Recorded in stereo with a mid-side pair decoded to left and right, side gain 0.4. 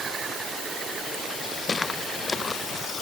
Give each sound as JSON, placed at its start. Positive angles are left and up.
{"t": 1.7, "sound": "footsteps", "azimuth_deg": 35}